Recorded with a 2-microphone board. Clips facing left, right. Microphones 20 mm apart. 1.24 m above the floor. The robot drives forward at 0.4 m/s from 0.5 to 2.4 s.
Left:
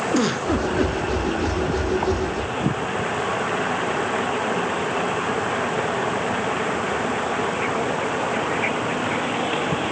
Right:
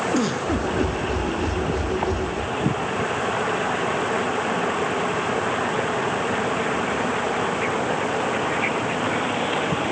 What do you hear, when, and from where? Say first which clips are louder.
0.1 s a giggle: left 2 dB; 15° left (ahead or behind), 2.5 m